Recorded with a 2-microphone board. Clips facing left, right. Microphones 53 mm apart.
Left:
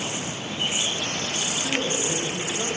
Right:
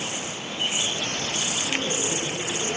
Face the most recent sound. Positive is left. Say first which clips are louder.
# left 2 dB
turn(degrees=65)  # may be behind; listen again after turning